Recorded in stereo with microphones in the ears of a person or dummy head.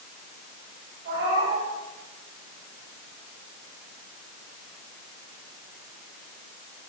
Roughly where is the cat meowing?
Right.